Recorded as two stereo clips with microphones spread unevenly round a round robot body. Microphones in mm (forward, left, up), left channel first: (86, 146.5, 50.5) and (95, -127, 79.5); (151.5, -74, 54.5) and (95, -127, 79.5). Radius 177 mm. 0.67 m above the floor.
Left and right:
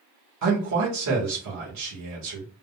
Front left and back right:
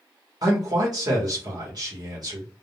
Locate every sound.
0.4 s a man speaking: 95° right, 1.3 m